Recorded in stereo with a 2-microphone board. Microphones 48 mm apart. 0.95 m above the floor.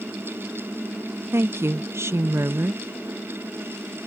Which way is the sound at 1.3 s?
65° right (ahead or behind).